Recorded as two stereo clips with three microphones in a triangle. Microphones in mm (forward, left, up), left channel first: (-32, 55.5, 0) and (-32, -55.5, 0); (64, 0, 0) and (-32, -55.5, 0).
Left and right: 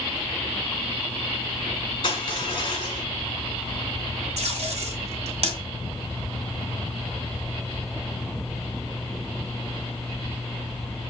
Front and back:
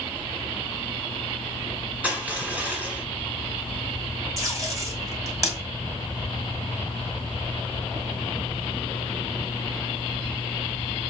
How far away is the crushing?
About 1.6 m.